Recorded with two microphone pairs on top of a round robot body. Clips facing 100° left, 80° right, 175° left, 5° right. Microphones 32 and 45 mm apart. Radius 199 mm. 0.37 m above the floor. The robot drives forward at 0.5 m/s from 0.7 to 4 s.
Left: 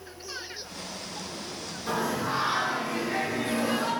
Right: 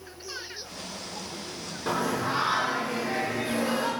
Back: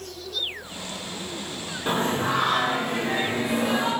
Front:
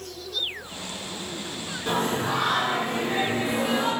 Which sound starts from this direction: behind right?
Singing, at 1.9 s.